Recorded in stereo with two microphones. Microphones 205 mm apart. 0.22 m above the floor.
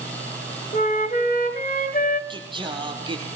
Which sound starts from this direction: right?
Singing, at 2.3 s.